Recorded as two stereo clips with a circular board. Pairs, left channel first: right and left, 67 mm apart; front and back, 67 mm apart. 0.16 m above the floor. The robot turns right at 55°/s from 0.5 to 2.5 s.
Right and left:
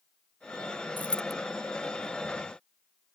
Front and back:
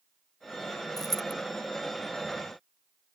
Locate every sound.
1.0 s a dropped coin: 25° right; by 1.3 s 5° right